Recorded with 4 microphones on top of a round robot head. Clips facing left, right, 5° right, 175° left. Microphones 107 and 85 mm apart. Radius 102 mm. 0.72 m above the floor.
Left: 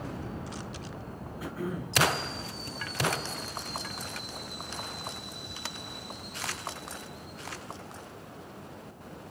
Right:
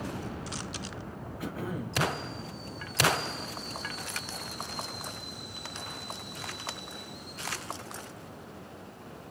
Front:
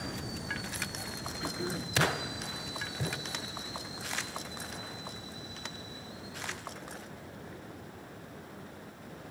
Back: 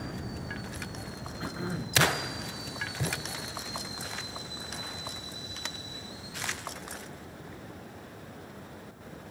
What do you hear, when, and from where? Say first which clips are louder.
1.4 s throat clearing: even, back 1 dB; 115° right, 2.5 m